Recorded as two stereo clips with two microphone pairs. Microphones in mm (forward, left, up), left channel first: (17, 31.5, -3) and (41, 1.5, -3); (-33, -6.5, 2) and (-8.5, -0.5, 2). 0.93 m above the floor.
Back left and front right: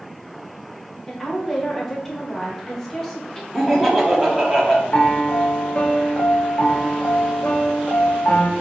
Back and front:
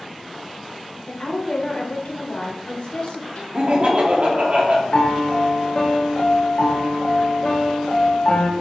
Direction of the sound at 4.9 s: 160° left.